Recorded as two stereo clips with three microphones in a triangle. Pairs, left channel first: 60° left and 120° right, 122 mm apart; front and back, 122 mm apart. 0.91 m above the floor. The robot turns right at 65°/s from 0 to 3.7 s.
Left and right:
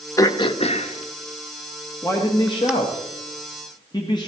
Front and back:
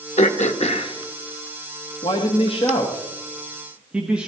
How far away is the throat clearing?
About 0.9 m.